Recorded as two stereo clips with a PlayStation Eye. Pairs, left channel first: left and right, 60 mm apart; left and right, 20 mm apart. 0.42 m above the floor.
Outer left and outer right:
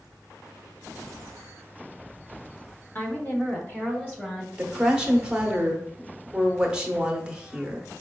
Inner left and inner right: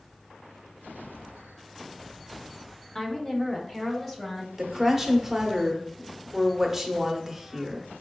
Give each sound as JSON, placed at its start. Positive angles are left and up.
{"t": 3.0, "sound": "a woman speaking", "side_deg": 30, "distance_m": 0.9}
{"t": 4.6, "sound": "a woman speaking", "side_deg": -15, "distance_m": 0.8}